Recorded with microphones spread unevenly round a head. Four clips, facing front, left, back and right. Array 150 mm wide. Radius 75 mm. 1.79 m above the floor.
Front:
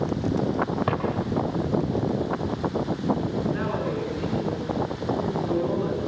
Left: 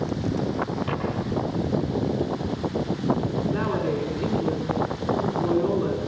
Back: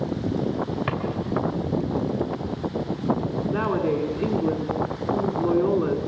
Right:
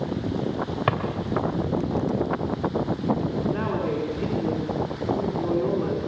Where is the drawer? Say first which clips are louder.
Right 4 dB, front 2 dB; 70° right, 3 m.